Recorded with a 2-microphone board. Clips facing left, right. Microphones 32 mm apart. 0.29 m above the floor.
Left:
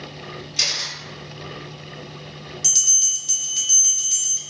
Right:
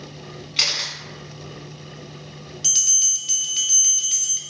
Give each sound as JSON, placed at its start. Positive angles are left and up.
{"t": 0.6, "sound": "a camera shutter", "side_deg": -45, "distance_m": 0.8}
{"t": 2.6, "sound": "a bell", "side_deg": -25, "distance_m": 0.5}